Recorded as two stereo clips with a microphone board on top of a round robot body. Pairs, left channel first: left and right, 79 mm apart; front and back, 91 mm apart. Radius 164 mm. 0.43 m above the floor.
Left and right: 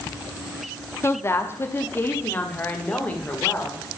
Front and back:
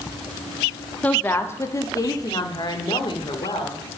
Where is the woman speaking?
65° left, 1.3 m; by 4.0 s 20° left, 2.5 m.